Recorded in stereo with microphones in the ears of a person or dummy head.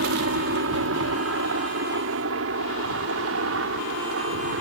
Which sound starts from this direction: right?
A helicopter, at 0.0 s.